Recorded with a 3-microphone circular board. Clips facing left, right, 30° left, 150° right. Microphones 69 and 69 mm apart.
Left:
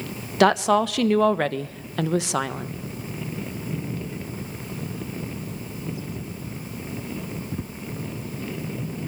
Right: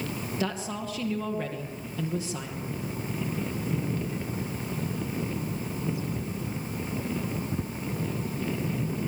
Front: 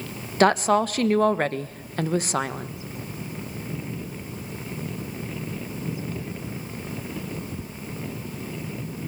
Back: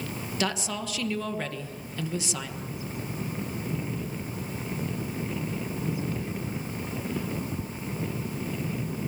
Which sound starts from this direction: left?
A woman speaking, at 0.4 s.